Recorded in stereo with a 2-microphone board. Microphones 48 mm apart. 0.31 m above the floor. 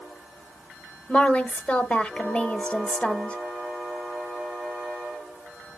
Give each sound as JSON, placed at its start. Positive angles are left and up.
{"t": 1.1, "sound": "a woman speaking", "side_deg": 25, "distance_m": 0.9}